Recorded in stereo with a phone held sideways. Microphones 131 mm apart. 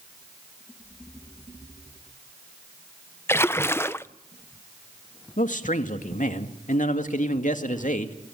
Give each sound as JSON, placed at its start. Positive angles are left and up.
{"t": 3.3, "sound": "a splash", "side_deg": 20, "distance_m": 0.6}
{"t": 5.4, "sound": "a man speaking", "side_deg": 75, "distance_m": 2.0}